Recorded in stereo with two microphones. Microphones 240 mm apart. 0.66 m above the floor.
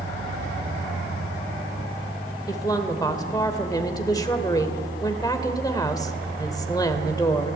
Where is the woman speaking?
15° left (ahead or behind), 2 m.